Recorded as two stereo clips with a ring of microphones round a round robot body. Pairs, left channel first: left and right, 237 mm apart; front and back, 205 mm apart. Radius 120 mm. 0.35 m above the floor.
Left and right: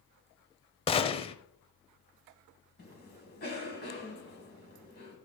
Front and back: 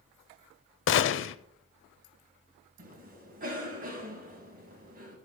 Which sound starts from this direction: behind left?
A cough, at 2.8 s.